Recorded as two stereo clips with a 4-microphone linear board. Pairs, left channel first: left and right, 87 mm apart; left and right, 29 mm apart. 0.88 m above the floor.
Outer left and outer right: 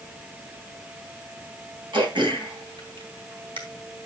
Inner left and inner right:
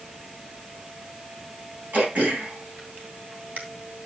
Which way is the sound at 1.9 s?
75° right (ahead or behind).